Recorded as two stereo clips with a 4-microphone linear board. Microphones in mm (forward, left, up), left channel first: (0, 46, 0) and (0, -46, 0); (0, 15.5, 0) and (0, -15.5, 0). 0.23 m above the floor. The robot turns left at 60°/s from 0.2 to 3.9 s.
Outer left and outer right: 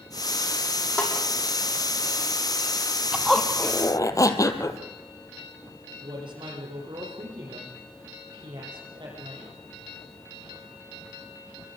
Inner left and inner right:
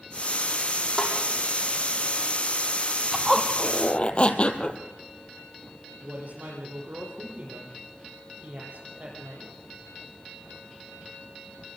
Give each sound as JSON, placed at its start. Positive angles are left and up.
{"t": 1.0, "sound": "a snare drum", "side_deg": 15, "distance_m": 7.0}
{"t": 3.1, "sound": "a zipper", "azimuth_deg": -170, "distance_m": 1.6}
{"t": 6.0, "sound": "a woman speaking", "side_deg": -60, "distance_m": 9.0}